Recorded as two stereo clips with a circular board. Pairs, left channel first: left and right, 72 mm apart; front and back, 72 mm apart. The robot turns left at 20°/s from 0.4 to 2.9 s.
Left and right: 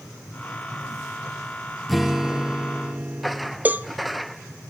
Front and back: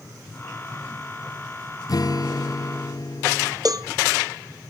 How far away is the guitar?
About 0.8 m.